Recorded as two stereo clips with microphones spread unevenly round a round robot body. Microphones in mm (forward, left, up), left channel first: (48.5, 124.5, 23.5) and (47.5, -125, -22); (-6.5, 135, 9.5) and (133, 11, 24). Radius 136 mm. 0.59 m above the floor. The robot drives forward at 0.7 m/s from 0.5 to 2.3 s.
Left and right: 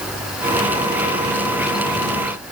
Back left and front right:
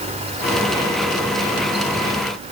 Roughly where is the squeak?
I don't hear a squeak.